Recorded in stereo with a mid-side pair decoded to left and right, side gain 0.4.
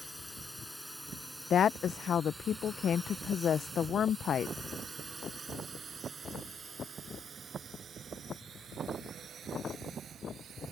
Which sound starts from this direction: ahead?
A drone, at 0.0 s.